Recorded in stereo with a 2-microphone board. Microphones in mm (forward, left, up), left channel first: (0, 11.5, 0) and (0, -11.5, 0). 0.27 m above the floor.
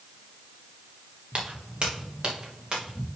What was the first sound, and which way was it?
Footsteps, 45° right (ahead or behind).